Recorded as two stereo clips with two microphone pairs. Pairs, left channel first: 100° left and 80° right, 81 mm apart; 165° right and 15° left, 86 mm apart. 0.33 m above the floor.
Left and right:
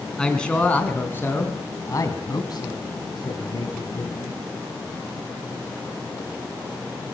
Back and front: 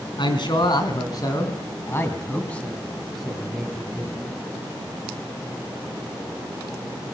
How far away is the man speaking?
About 4 m.